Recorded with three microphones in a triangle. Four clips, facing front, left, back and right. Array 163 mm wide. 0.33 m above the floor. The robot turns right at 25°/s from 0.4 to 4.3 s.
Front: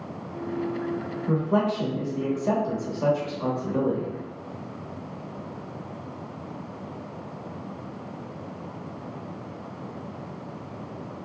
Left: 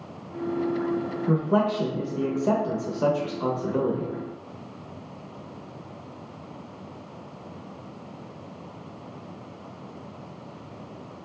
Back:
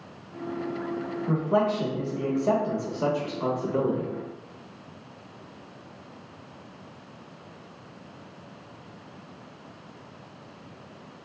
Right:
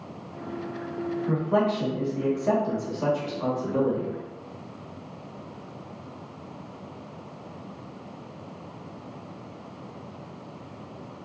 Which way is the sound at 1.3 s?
75° left.